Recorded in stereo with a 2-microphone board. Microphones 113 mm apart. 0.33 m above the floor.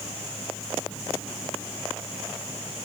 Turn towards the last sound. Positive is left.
No sound to turn to.